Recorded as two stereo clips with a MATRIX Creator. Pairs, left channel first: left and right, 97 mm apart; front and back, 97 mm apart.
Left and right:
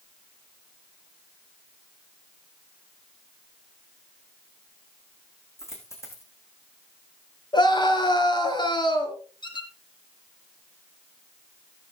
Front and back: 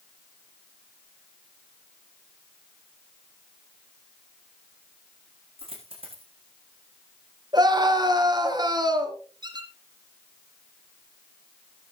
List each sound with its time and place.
5.6 s a dropped coin: 150° left, 6 m
7.5 s a scream: 130° left, 4 m
9.4 s a squeak: 135° left, 3 m